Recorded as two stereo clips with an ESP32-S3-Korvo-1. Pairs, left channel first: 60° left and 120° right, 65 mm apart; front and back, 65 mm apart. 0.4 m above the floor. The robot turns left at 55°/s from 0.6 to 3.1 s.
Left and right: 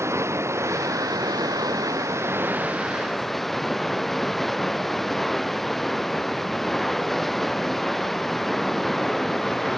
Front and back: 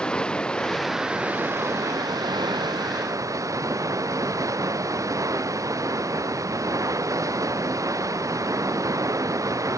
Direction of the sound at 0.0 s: 75° right.